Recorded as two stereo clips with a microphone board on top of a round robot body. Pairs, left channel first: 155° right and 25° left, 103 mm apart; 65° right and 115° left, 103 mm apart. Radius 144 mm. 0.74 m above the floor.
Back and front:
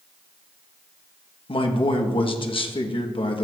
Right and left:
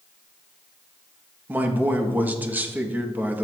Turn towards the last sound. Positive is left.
turn(degrees=-175)